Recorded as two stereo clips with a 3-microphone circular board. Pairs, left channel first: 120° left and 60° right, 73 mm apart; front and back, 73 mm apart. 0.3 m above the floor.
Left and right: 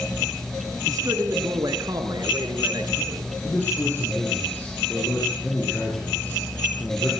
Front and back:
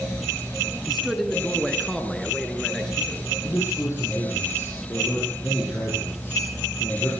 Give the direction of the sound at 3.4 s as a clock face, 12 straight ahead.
10 o'clock.